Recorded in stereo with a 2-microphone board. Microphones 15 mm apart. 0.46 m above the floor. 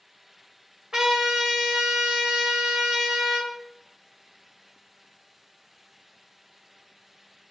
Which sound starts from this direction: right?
A trumpet, at 0.9 s.